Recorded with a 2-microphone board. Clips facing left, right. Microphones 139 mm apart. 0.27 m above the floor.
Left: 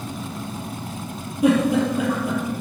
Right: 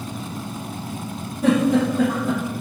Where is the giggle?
15° left (ahead or behind), 4 m.